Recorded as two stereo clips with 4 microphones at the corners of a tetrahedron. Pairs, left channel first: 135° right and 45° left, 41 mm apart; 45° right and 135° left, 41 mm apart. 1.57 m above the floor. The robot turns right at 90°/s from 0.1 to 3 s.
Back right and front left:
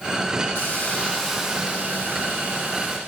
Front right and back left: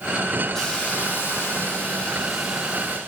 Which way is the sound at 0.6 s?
120° right.